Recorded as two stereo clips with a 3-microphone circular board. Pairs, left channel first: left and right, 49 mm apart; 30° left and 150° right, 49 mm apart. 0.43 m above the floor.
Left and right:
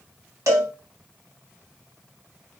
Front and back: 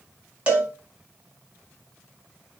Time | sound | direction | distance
0.5 | a cowbell | 85° right | 1.0 m